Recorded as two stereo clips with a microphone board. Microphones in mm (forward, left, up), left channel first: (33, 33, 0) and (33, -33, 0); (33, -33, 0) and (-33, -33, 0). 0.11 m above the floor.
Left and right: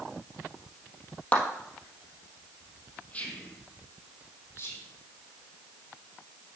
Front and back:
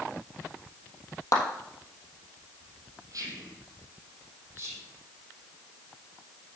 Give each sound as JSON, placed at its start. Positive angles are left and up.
{"t": 1.3, "sound": "a clap", "azimuth_deg": 25, "distance_m": 2.5}
{"t": 3.1, "sound": "whispering", "azimuth_deg": 160, "distance_m": 3.0}
{"t": 4.5, "sound": "whispering", "azimuth_deg": 130, "distance_m": 4.0}